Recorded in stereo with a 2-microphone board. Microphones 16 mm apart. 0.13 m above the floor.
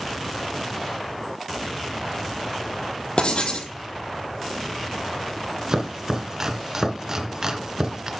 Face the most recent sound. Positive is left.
turn(degrees=-35)  # may be behind; listen again after turning